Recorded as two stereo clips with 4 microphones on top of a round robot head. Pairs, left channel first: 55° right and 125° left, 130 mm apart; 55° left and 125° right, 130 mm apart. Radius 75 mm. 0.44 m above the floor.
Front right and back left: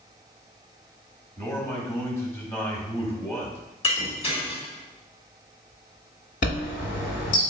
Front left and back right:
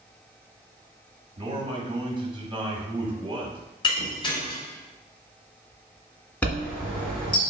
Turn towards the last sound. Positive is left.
turn(degrees=-30)